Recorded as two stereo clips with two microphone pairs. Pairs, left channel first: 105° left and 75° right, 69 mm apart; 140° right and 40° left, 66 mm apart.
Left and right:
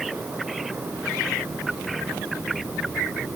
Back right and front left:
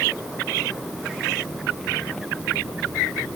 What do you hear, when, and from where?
Only background noise.